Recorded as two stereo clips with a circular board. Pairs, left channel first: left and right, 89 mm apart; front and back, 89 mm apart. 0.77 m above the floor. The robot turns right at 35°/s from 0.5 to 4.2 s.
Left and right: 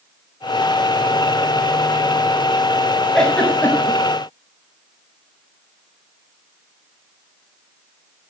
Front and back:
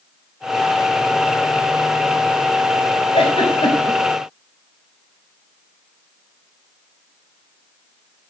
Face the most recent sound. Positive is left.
turn(degrees=45)